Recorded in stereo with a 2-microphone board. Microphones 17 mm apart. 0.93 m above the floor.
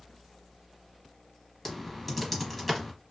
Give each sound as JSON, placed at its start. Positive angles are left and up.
{"t": 1.6, "sound": "typing on a keyboard", "side_deg": 5, "distance_m": 0.9}